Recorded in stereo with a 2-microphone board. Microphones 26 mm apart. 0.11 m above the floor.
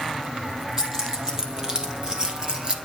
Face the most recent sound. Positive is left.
turn(degrees=-40)  # may be behind; listen again after turning